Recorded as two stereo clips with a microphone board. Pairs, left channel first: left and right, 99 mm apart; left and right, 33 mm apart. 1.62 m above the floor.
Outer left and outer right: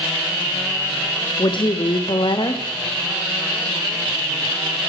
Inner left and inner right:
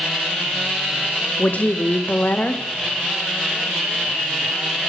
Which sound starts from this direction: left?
A woman speaking, at 1.4 s.